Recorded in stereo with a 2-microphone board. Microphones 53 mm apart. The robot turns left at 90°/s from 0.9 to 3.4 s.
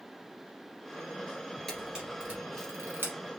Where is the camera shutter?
5° left (ahead or behind), 2.5 m; by 3.1 s 45° right (ahead or behind), 2.5 m.